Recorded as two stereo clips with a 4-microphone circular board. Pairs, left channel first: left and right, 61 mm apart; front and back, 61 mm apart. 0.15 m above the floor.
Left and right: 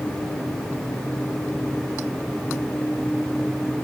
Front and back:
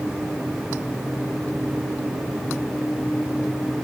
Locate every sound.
Only background noise.